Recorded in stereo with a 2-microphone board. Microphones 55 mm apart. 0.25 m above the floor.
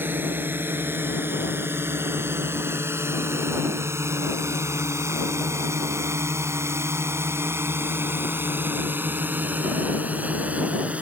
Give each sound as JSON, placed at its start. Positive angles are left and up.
{"t": 0.0, "sound": "a drone", "side_deg": -40}